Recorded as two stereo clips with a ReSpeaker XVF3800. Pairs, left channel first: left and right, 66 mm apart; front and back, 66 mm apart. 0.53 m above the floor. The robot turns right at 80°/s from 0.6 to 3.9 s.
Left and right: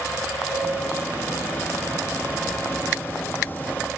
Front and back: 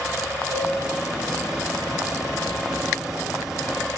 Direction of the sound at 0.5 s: 120° left.